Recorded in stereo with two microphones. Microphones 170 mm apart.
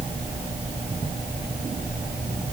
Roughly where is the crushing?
I don't hear crushing.